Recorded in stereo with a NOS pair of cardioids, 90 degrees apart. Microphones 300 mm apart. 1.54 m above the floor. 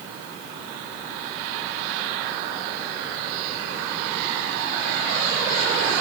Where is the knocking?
No knocking in this recording.